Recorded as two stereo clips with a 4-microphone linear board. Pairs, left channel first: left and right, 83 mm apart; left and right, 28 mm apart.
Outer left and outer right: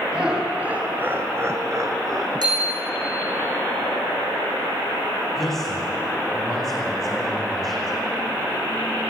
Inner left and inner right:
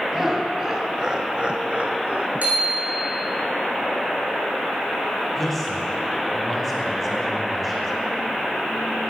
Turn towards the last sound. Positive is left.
turn(degrees=5)  # may be behind; listen again after turning